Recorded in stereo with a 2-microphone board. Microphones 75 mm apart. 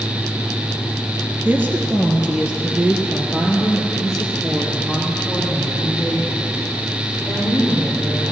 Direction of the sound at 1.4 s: 25° right (ahead or behind).